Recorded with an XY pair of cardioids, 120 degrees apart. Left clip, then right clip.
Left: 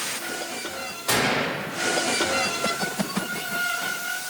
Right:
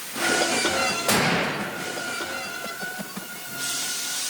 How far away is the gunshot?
About 1.7 m.